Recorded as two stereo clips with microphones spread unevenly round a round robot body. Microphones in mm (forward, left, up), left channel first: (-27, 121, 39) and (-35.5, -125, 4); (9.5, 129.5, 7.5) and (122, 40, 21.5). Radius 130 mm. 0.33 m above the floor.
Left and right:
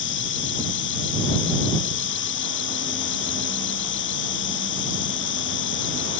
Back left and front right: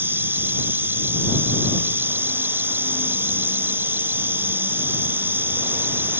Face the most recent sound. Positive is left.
turn(degrees=40)